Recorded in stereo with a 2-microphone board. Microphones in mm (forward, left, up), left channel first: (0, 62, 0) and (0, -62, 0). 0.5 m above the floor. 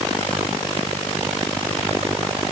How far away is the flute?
No flute in this recording.